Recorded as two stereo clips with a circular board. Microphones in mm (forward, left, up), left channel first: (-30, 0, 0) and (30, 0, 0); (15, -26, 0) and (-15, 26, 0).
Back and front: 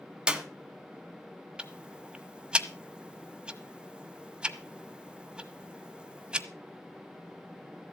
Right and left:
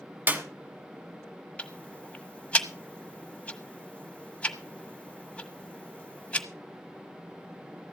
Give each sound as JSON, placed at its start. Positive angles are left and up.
{"t": 0.3, "sound": "a clap", "azimuth_deg": 70, "distance_m": 1.3}
{"t": 1.6, "sound": "ticking", "azimuth_deg": -50, "distance_m": 1.2}